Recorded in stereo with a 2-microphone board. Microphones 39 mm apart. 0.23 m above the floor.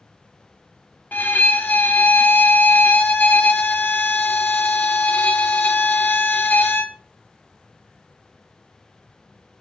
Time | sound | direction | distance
1.1 | a violin | 55° left (ahead or behind) | 0.6 m